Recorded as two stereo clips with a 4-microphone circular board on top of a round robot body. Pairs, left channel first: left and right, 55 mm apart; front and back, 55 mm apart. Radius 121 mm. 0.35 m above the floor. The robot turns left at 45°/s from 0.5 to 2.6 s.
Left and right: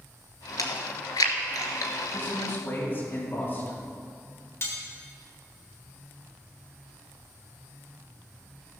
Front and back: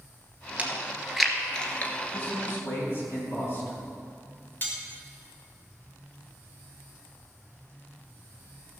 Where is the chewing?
115° left, 1.1 m; by 1.9 s 55° left, 1.1 m.